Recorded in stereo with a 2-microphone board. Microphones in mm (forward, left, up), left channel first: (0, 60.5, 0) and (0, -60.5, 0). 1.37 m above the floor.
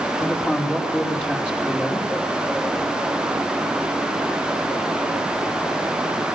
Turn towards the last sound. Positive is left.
turn(degrees=15)  # may be behind; listen again after turning